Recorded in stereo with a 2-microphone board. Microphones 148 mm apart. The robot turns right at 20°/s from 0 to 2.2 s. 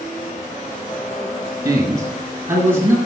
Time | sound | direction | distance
1.6 | a man speaking | 25° right (ahead or behind) | 1.5 m